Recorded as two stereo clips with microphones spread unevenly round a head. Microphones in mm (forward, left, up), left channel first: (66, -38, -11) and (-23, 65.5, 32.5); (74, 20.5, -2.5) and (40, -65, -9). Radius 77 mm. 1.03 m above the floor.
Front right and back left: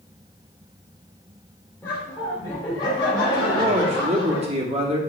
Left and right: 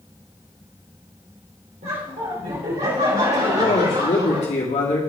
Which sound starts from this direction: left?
A man speaking, at 3.5 s.